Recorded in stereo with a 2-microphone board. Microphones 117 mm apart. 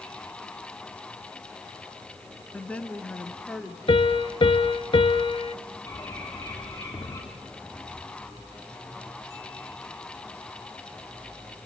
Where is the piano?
50° left (ahead or behind), 0.8 m.